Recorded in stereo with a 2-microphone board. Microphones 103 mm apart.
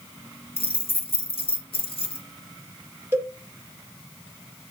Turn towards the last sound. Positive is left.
turn(degrees=-25)  # may be behind; listen again after turning